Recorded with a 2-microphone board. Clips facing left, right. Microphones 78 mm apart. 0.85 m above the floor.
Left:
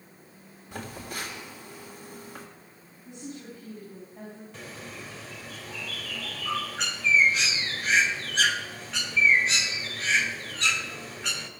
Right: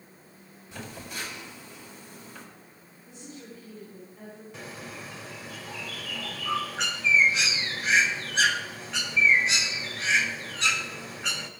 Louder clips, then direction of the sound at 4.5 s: Right 3 dB; 5° right (ahead or behind).